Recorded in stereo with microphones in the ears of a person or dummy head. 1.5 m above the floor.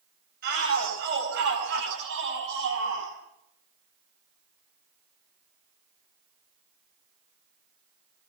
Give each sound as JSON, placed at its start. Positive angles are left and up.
{"t": 0.4, "sound": "a shout", "side_deg": -60, "distance_m": 9.5}